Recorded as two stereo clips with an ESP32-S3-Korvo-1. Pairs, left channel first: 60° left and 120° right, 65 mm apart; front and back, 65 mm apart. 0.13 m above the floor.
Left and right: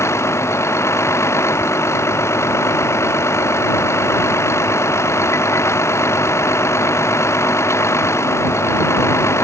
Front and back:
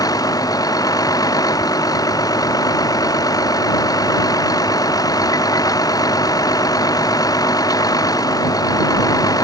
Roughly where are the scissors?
No scissors in this recording.